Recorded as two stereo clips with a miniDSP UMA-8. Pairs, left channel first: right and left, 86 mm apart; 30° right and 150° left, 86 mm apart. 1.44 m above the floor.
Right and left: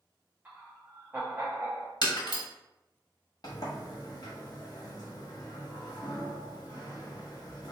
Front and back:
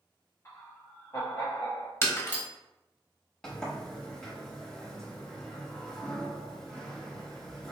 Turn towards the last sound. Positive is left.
turn(degrees=-110)